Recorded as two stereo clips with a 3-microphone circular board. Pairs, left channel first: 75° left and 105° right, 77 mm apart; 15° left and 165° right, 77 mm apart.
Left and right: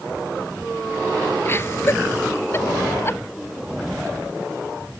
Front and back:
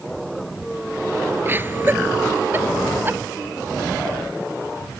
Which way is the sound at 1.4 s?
135° left.